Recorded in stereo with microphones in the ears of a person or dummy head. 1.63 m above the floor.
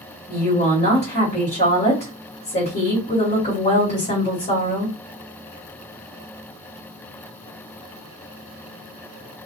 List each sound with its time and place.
0.3 s a woman speaking: 40° left (ahead or behind), 1.6 m